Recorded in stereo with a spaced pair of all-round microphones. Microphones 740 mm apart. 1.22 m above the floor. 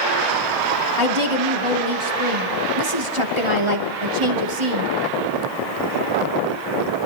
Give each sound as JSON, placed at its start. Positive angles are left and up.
{"t": 1.0, "sound": "a woman speaking", "side_deg": -40, "distance_m": 2.5}